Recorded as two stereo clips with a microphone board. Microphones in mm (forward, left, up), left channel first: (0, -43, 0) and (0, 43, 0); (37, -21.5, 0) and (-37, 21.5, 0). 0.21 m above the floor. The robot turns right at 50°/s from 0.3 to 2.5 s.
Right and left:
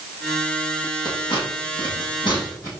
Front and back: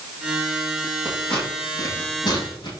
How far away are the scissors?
About 6.5 m.